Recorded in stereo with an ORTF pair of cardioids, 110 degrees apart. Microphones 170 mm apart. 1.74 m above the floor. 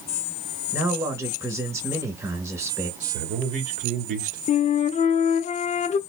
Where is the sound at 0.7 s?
15° right, 1.9 m.